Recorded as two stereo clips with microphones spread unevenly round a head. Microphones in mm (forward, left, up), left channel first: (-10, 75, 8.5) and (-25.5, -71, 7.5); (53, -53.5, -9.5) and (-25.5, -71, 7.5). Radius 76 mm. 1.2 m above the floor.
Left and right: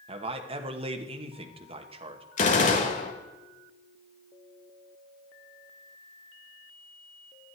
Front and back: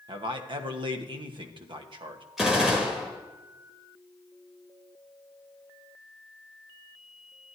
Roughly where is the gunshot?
Behind left.